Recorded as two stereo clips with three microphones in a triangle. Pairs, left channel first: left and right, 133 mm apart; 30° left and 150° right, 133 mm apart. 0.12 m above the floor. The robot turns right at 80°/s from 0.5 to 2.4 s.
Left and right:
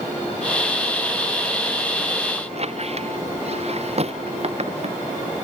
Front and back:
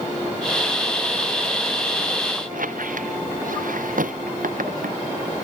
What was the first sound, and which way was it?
A squeak, 130° right.